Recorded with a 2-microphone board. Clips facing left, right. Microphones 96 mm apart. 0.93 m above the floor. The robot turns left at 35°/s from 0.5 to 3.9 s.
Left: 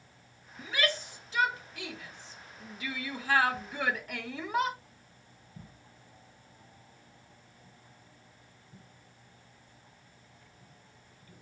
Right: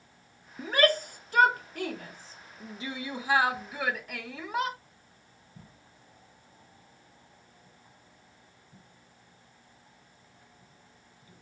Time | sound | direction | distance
0.6 | a shout | 45° right (ahead or behind) | 0.7 m